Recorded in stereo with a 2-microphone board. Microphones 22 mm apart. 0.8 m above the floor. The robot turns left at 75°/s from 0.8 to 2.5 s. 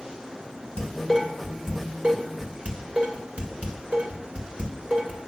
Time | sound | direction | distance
0.8 | dishes clattering | 45° left (ahead or behind) | 2 m